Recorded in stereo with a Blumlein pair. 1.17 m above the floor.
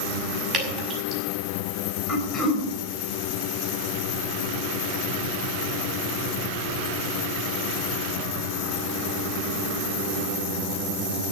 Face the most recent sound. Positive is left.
turn(degrees=5)